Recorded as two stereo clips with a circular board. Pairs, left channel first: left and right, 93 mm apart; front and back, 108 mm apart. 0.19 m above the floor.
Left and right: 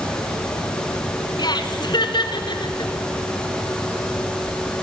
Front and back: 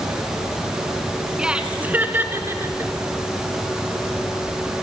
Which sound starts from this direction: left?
Laughter, at 1.4 s.